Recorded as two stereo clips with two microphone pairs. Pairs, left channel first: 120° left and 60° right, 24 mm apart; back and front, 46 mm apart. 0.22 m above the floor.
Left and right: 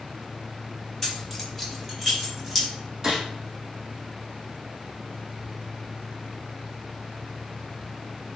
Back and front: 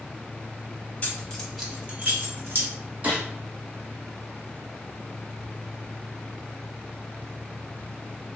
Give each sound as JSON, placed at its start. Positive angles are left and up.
{"t": 1.0, "sound": "keys jangling", "azimuth_deg": -175, "distance_m": 0.8}
{"t": 3.0, "sound": "a gunshot", "azimuth_deg": -10, "distance_m": 1.3}